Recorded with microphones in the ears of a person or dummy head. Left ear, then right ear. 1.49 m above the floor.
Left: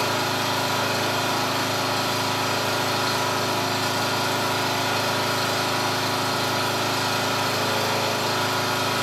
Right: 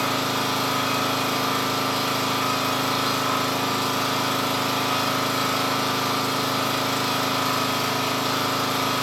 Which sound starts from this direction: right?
An engine running, at 0.0 s.